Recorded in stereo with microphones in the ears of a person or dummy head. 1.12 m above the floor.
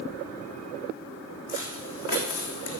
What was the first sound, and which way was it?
Footsteps, 55° left (ahead or behind).